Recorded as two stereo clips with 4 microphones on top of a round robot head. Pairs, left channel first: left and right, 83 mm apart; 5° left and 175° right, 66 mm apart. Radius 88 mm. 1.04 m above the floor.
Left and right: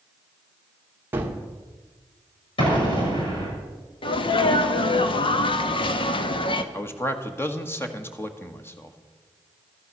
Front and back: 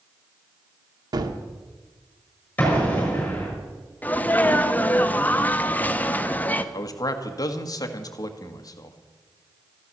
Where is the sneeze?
75° left, 1.3 m.